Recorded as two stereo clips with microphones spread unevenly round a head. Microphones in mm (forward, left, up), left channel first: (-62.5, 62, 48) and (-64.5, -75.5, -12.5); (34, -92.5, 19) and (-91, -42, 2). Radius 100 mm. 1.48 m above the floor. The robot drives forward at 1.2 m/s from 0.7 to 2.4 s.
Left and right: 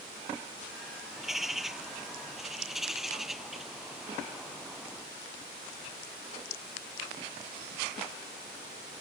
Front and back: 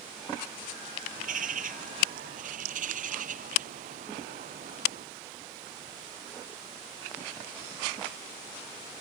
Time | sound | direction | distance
1.2 | a bird | straight behind | ?